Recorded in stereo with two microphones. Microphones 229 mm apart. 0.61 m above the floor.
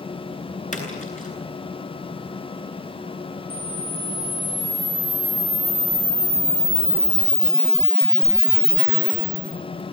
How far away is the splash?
About 9 m.